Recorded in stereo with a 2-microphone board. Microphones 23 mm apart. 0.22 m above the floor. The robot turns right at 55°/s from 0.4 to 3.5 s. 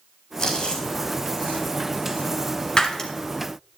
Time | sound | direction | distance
0.4 | chewing | 30° left (ahead or behind) | 3.5 m
2.8 | breaking glass | 30° left (ahead or behind) | 1.7 m